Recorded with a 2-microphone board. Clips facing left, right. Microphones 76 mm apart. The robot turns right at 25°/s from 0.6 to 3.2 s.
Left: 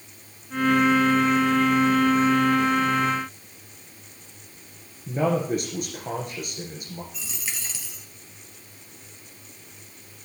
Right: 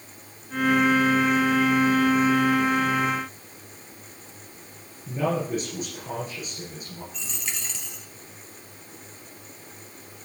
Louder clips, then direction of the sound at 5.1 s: Left 3 dB; 65° left (ahead or behind).